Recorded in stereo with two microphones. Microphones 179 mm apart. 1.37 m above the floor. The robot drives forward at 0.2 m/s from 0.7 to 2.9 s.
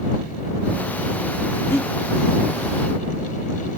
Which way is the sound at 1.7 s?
15° left (ahead or behind).